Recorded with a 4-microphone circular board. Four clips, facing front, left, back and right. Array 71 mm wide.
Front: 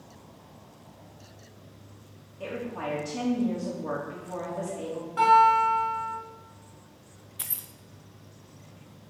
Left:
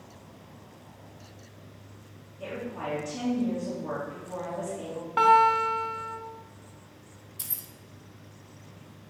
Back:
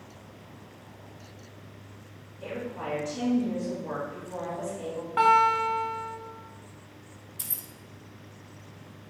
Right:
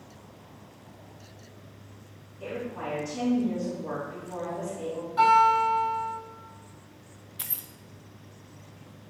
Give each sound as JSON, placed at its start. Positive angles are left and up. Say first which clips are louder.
{"t": 2.4, "sound": "a woman speaking", "louder": "right 1 dB, front 1 dB", "azimuth_deg": 10, "distance_m": 3.5}
{"t": 5.2, "sound": "a guitar", "louder": "even, front 2 dB", "azimuth_deg": 120, "distance_m": 1.6}
{"t": 7.4, "sound": "keys jangling", "louder": "right 5 dB, front 3 dB", "azimuth_deg": -50, "distance_m": 0.5}